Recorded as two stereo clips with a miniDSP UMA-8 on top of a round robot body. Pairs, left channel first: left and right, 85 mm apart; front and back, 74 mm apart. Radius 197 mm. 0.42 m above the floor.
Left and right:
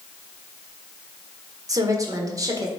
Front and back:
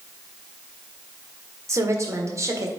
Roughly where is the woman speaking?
Behind right.